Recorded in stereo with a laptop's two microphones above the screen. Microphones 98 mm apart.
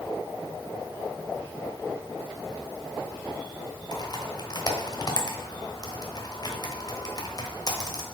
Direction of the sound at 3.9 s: 45° left (ahead or behind).